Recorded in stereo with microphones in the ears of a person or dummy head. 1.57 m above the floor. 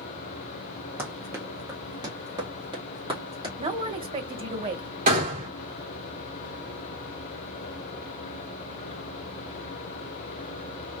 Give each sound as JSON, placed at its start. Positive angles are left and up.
{"t": 1.0, "sound": "running footsteps", "side_deg": -15, "distance_m": 1.8}
{"t": 3.6, "sound": "a man speaking", "side_deg": -25, "distance_m": 1.1}
{"t": 5.1, "sound": "a gunshot", "side_deg": -40, "distance_m": 2.0}